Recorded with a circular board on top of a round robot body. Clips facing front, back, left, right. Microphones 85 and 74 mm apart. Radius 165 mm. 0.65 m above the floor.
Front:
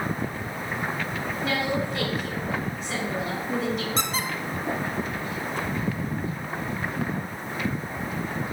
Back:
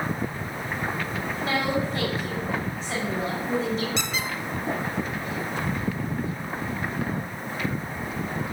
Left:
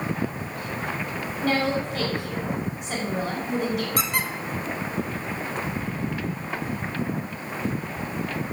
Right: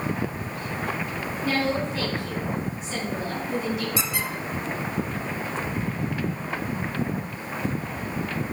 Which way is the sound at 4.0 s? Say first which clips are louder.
Front 1 dB, left 2 dB; 50° left.